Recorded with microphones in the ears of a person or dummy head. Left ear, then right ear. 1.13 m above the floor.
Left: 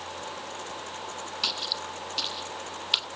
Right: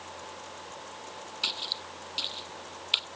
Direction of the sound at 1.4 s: 10° left (ahead or behind).